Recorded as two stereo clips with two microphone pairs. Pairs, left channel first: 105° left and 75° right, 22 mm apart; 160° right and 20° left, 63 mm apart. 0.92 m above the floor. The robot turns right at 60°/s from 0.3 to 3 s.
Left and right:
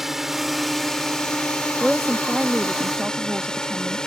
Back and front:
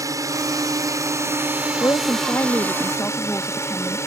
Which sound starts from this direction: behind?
A woman speaking, at 1.8 s.